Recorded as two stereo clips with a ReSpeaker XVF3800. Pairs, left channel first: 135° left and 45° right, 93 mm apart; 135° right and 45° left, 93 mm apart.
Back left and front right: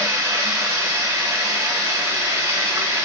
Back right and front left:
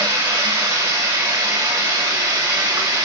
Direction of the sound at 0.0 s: 5° left.